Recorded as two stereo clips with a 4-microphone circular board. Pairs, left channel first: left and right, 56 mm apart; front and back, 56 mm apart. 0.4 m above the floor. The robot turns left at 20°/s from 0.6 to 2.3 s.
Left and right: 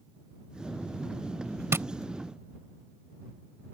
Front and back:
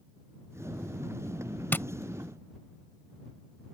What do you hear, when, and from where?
1.7 s tapping: 50° right; by 1.9 s 55° right